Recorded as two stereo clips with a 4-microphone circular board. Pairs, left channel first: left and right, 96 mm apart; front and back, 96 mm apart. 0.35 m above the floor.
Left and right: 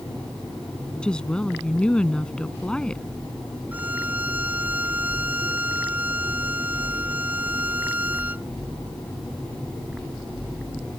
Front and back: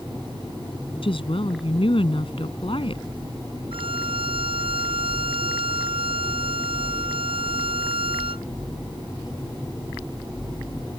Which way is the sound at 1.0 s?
10° left.